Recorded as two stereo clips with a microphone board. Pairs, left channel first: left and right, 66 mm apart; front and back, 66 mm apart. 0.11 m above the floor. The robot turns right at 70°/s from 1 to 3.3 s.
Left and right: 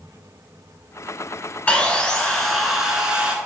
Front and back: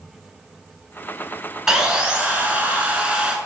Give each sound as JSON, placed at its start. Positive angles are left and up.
{"t": 1.7, "sound": "sawing", "azimuth_deg": 110, "distance_m": 0.7}